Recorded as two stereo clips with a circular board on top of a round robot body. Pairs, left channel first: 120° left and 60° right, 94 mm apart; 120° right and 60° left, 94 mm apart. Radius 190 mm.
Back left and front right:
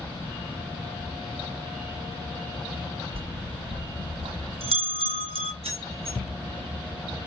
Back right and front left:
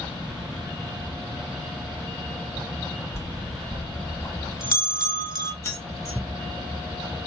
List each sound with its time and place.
3.1 s a bell: 60° right, 1.5 m
5.6 s keys jangling: 55° right, 1.5 m